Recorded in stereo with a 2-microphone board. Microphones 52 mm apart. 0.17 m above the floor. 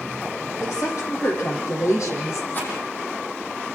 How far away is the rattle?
About 7.5 m.